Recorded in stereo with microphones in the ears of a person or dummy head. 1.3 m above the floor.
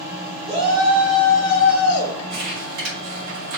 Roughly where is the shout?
Right.